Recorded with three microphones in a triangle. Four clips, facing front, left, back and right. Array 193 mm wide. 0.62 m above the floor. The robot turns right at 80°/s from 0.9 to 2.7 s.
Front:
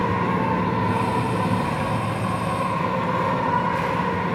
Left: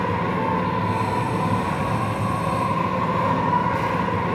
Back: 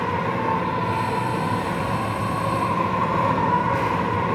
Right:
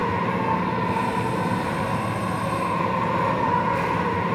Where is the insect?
10° left, 1.5 m; by 4.4 s 150° left, 1.5 m.